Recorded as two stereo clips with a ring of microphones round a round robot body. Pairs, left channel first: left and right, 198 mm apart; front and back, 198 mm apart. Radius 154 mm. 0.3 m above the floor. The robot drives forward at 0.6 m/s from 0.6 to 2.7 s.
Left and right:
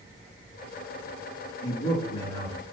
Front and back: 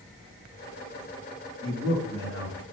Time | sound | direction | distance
1.6 | a man speaking | 120° left | 4 m